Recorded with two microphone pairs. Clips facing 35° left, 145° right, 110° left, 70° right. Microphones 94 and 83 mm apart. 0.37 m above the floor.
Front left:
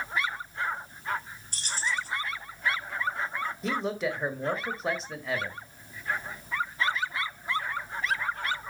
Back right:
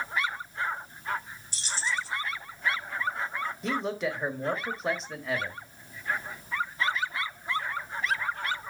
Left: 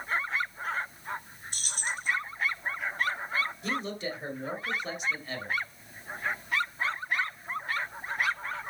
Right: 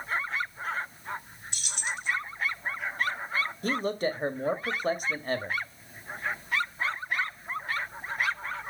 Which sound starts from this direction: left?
Keys jangling, at 1.5 s.